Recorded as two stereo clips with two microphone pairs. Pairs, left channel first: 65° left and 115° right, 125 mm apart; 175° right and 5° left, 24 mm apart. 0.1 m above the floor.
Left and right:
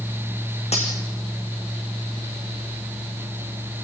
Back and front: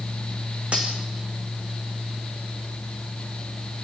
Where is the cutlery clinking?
40° left, 4.5 m.